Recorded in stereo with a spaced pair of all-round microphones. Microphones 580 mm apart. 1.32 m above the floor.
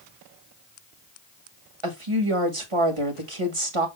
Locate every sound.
1.8 s a woman speaking: 60° right (ahead or behind), 1.8 m